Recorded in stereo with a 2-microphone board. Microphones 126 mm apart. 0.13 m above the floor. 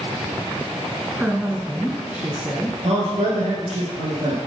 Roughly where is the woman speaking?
Centre.